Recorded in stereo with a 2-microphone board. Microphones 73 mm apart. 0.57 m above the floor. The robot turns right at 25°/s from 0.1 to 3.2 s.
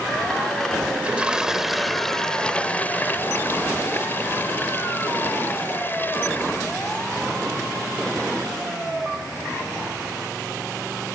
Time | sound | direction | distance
0.9 | a toilet flushing | 20° right | ?